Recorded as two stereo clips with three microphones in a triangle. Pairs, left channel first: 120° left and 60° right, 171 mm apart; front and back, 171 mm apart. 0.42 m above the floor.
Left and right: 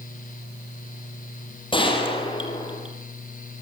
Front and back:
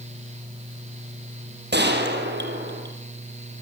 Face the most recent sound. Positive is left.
turn(degrees=180)